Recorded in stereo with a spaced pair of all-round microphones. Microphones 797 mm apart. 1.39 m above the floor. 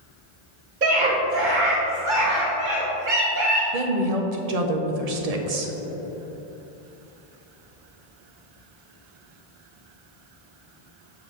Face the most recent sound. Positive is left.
turn(degrees=-55)  # may be behind; listen again after turning